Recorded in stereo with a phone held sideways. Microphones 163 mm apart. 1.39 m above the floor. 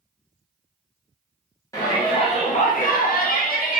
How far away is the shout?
About 0.8 m.